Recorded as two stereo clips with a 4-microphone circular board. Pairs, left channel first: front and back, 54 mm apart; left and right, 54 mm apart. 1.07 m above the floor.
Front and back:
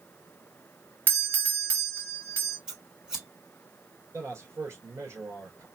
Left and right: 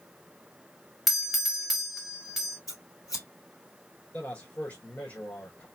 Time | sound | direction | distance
1.1 | a doorbell | 175° right | 1.2 m
2.7 | scissors | 105° left | 3.5 m
4.1 | a man speaking | 145° left | 3 m